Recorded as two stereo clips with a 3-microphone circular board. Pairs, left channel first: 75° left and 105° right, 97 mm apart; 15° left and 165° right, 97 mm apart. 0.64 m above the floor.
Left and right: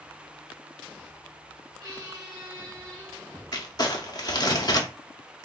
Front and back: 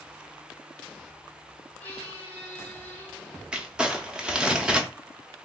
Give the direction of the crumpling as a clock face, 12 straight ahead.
8 o'clock.